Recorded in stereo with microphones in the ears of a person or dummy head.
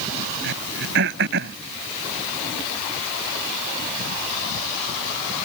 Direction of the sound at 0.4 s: 65° right (ahead or behind).